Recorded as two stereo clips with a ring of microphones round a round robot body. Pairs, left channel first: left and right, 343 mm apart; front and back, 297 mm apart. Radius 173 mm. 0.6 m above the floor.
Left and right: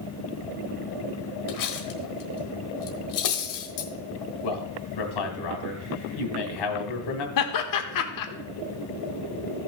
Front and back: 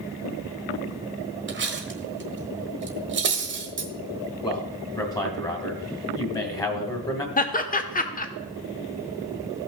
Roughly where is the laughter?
Ahead left.